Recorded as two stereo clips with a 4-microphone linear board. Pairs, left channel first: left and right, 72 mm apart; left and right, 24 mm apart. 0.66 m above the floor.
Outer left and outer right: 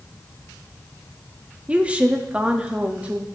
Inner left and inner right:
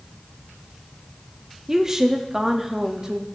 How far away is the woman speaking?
About 0.8 m.